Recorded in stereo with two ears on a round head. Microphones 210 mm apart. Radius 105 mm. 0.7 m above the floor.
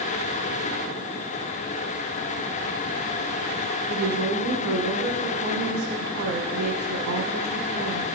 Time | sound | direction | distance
3.9 | a woman speaking | 65° right (ahead or behind) | 5.5 m